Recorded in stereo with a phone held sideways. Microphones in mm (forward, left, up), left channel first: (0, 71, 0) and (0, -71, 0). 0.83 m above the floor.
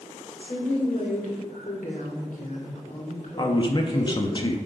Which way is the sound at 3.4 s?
35° left (ahead or behind).